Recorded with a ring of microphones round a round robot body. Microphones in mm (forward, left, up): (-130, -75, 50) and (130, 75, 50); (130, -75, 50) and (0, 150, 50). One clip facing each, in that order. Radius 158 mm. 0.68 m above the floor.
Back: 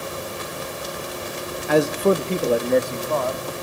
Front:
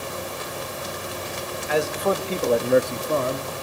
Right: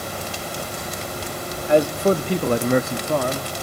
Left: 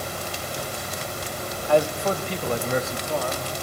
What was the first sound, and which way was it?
A man speaking, 130° right.